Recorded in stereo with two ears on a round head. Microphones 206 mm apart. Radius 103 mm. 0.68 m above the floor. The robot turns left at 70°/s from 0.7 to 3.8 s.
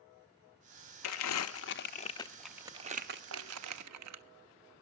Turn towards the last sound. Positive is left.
turn(degrees=-80)